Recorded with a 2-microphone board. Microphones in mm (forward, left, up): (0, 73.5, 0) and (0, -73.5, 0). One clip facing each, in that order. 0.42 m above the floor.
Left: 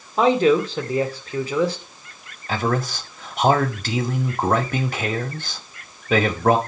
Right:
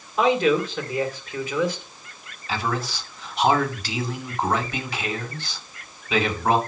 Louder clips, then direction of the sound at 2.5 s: Left 4 dB; 50° left (ahead or behind).